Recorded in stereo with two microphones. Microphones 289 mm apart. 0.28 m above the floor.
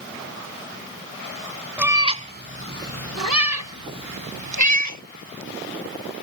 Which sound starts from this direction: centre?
A cat meowing, at 1.8 s.